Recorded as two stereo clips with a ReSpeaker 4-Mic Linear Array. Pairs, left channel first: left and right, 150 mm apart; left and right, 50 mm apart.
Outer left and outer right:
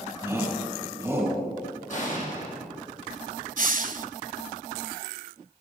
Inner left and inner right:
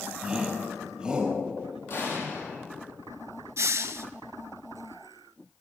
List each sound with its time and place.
0.2 s a shout: 15° right (ahead or behind), 3.5 m
1.9 s an explosion: 55° left (ahead or behind), 4.5 m
3.6 s a hiss: 65° right (ahead or behind), 0.6 m